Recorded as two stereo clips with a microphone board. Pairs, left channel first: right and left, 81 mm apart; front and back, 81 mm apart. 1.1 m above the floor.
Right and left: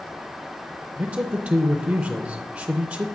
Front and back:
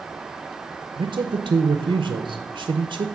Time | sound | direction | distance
1.0 | a man speaking | 155° left | 0.5 m